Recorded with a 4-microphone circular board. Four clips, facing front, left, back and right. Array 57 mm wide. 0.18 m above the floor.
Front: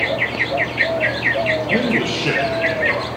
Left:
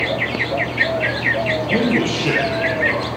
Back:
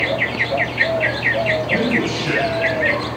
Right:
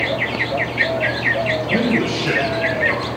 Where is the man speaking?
30° left, 4 m.